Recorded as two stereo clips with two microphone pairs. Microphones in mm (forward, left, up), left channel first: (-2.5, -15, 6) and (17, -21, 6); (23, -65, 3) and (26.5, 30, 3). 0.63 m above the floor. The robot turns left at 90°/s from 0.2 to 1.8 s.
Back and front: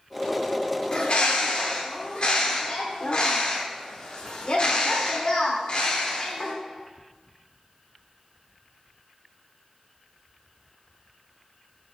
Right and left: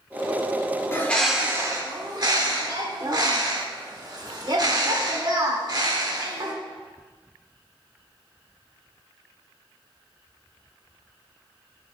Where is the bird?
150° right, 1.0 m; by 6.5 s 130° left, 1.0 m.